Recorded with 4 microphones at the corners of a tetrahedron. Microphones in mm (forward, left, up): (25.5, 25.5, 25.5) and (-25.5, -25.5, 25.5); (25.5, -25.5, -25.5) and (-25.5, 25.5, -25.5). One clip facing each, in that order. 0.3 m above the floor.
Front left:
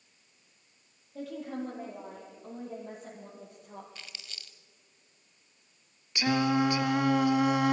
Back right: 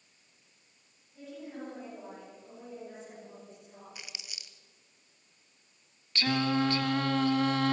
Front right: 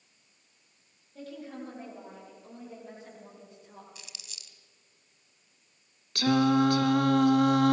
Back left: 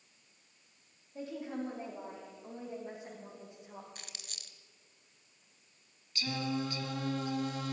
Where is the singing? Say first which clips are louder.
Front left 2 dB, front right 13 dB; 30° right, 0.7 m.